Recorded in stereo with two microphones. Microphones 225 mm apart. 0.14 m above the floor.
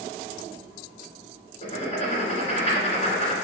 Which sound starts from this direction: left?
Writing, at 1.6 s.